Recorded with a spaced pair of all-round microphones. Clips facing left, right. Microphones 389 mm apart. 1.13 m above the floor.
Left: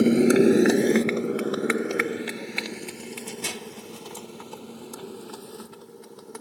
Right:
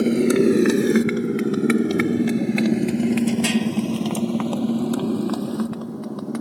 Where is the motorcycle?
Centre (ahead or behind); by 6.4 s 75° right (ahead or behind).